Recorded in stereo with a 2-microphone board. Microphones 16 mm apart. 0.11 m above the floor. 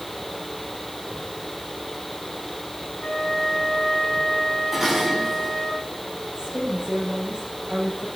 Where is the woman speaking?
80° right, 9 m.